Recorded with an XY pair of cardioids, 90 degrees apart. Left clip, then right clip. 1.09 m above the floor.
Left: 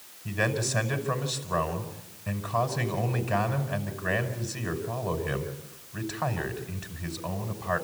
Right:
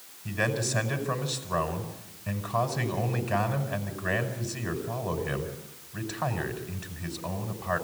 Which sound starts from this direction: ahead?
A man speaking, at 0.2 s.